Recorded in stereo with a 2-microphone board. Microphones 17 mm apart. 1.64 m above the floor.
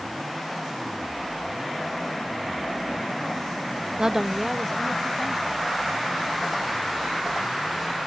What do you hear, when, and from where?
4.0 s a woman speaking: 45° right (ahead or behind); by 5.7 s 10° left (ahead or behind)